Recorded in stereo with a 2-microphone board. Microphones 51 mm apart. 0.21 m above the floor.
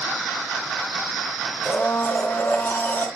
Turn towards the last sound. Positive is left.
turn(degrees=45)  # may be behind; listen again after turning